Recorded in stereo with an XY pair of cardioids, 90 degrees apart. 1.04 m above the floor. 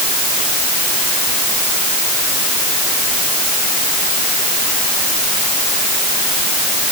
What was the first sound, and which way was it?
Only background noise.